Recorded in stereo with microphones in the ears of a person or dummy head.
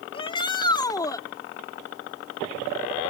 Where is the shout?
25° left (ahead or behind); by 1.2 s 15° left (ahead or behind).